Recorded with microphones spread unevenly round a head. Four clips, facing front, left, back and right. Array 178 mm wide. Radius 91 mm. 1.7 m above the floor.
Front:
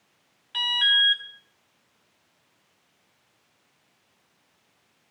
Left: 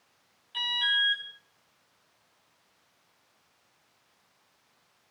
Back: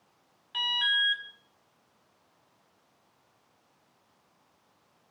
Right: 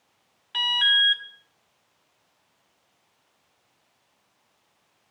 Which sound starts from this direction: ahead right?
An alarm, at 0.5 s.